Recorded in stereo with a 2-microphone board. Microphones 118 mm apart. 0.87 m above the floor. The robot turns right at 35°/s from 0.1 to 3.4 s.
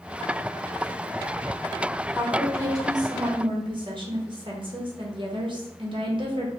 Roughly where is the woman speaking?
Behind.